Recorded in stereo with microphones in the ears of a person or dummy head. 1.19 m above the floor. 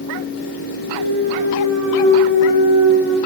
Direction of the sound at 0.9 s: 65° right (ahead or behind).